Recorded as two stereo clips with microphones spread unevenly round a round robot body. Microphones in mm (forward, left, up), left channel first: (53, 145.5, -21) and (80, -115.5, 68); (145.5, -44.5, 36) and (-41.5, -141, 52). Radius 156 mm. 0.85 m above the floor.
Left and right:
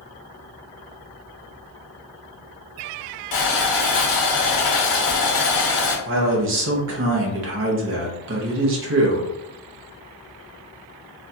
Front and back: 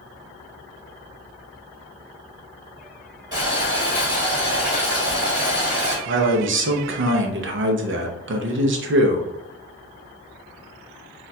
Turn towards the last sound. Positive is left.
turn(degrees=-140)